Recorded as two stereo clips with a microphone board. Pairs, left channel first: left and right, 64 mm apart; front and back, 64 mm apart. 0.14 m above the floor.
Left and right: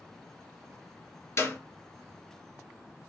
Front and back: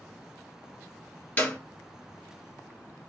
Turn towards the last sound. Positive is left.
turn(degrees=60)